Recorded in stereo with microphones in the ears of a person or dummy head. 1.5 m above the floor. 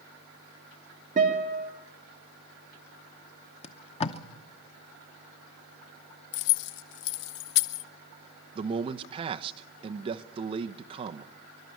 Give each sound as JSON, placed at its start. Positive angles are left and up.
{"t": 1.2, "sound": "a guitar", "side_deg": -50, "distance_m": 3.0}
{"t": 3.6, "sound": "tape being pulled", "side_deg": 40, "distance_m": 0.8}
{"t": 6.3, "sound": "keys jangling", "side_deg": 60, "distance_m": 0.8}
{"t": 8.6, "sound": "a man speaking", "side_deg": -40, "distance_m": 0.9}